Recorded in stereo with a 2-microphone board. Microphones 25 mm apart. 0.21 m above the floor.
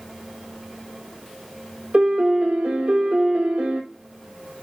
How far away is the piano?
About 1.0 m.